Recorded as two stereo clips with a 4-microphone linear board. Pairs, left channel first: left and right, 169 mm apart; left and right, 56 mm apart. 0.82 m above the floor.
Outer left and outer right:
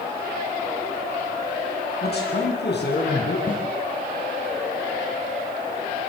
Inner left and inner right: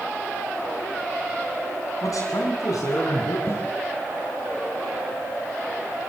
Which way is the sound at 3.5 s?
50° left (ahead or behind).